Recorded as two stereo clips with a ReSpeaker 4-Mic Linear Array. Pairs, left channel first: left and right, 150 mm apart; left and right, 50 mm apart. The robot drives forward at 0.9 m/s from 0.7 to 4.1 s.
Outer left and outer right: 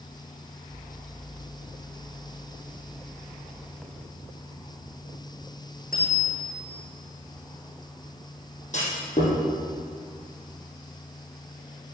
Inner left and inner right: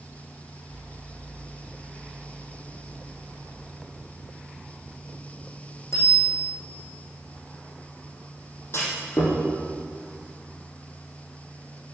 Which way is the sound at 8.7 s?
55° left (ahead or behind).